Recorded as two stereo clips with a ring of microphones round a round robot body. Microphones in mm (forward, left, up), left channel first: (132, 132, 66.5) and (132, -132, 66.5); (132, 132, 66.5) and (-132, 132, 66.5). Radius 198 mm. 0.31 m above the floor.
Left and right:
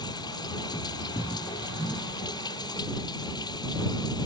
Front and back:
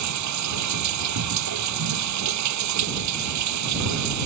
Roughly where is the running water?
Behind.